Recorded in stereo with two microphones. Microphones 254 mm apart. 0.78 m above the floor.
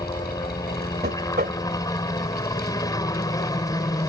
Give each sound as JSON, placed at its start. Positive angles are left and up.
{"t": 0.0, "sound": "a helicopter", "side_deg": 15}
{"t": 1.0, "sound": "knocking", "side_deg": -40}